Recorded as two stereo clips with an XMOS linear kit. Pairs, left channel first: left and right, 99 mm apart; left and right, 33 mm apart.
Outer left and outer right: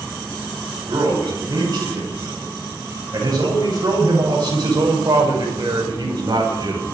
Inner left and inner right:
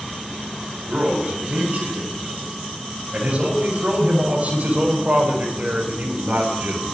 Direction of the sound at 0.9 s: 40° right (ahead or behind).